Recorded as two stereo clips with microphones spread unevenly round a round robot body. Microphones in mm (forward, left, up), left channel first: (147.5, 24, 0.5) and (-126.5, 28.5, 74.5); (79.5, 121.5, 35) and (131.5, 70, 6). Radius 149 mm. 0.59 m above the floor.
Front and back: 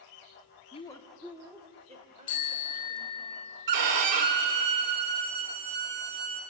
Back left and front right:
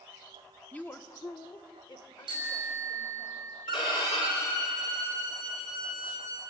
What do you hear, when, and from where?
0.7 s a woman speaking: 45° left, 1.1 m; by 3.3 s 120° left, 3.5 m
2.3 s a bicycle bell: 70° right, 4.5 m
3.7 s a violin: 160° right, 1.5 m